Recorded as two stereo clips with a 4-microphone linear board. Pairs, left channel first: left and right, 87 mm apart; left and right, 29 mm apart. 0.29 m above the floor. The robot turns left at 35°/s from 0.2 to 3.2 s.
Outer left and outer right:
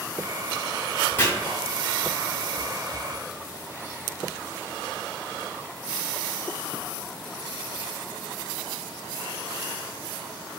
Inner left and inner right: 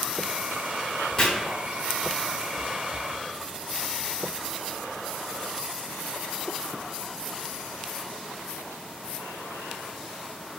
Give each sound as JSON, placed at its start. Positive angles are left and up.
{"t": 1.2, "sound": "chopping", "side_deg": 20, "distance_m": 1.4}